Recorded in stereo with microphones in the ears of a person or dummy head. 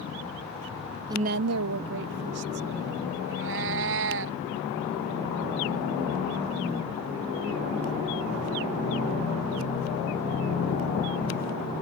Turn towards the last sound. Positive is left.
turn(degrees=-65)  # may be behind; listen again after turning